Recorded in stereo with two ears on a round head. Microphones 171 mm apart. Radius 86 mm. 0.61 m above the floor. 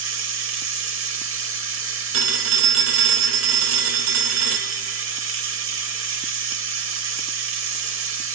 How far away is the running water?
About 1.2 m.